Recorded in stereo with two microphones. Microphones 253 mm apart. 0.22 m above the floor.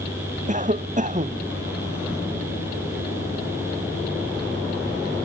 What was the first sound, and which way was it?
A cough, 30° right (ahead or behind).